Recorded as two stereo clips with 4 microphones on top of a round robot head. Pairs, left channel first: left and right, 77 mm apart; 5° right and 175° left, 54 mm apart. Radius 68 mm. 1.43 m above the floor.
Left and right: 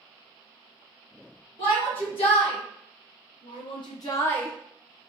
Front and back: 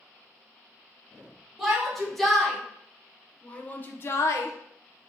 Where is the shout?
90° left, 1.6 m; by 5.1 s 25° right, 0.6 m.